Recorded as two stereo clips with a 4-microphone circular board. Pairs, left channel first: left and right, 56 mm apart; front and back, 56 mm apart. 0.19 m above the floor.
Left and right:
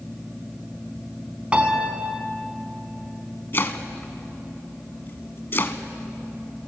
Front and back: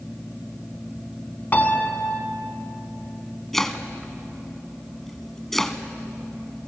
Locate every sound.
1.5 s a piano: 35° right, 1.7 m
3.5 s chopping: 80° left, 1.2 m